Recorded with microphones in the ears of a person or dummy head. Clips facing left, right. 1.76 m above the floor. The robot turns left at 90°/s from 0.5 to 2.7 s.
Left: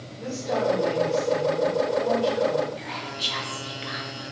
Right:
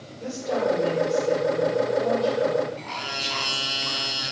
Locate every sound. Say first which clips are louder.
0.2 s a woman speaking: even; 50° right, 4 m; by 2.7 s 115° left, 4 m
2.8 s whispering: even; 15° left (ahead or behind), 0.8 m